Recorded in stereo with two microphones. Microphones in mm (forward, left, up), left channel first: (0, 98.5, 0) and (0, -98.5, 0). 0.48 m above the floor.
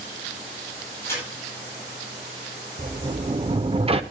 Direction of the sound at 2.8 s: 30° right (ahead or behind).